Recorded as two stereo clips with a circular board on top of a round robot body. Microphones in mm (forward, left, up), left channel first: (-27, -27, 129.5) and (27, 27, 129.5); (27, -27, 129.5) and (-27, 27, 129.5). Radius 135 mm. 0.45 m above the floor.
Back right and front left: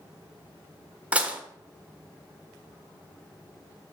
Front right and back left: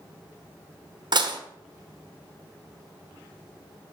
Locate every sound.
1.1 s dishes clattering: 120° left, 1.4 m